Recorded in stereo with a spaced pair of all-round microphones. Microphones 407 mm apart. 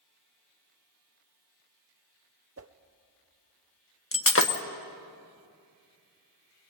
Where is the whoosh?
35° right (ahead or behind), 0.7 m.